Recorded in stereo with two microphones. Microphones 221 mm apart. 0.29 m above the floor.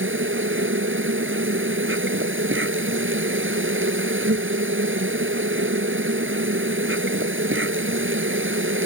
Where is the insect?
65° right (ahead or behind).